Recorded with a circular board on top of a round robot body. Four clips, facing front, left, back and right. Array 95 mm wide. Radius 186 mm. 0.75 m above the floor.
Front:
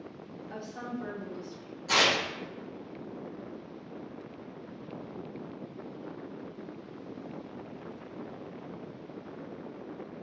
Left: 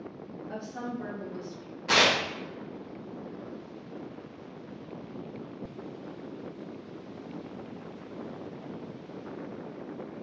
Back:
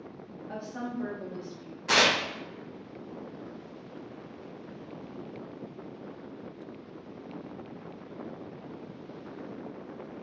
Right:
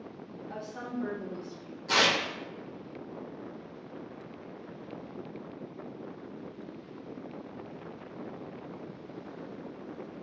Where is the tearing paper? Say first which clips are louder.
Left 2 dB, back 2 dB; 140° left, 1.1 m.